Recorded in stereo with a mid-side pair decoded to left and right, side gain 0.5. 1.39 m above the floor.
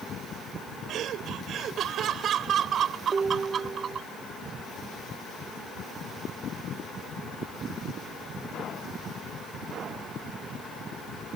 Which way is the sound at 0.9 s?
65° right.